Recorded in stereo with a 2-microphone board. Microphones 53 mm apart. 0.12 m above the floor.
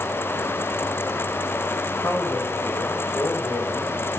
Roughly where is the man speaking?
Left.